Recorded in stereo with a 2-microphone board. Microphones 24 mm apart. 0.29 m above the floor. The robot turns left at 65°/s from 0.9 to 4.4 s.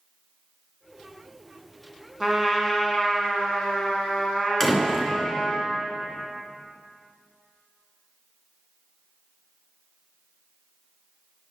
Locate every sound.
2.2 s a trumpet: 160° right, 1.7 m; by 5.6 s 55° left, 1.7 m
4.6 s a door slam: 15° left (ahead or behind), 2.5 m